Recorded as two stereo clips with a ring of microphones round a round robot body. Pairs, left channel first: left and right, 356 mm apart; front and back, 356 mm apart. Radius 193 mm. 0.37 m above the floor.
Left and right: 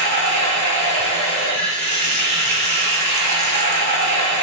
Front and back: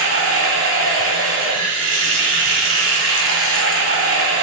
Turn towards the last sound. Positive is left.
turn(degrees=-140)